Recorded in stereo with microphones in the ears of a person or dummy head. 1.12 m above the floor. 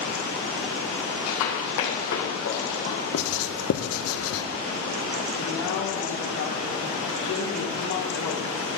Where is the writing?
70° left (ahead or behind), 0.7 m.